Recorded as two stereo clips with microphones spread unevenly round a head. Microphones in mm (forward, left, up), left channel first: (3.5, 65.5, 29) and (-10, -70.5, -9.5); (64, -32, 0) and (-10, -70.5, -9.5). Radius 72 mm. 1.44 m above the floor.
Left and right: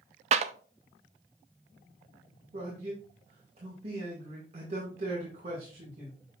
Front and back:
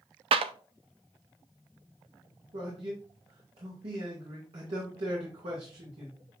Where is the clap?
140° right, 0.5 m.